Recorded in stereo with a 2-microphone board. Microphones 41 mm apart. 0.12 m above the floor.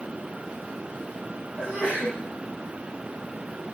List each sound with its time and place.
1.6 s a sneeze: 20° right (ahead or behind), 7 m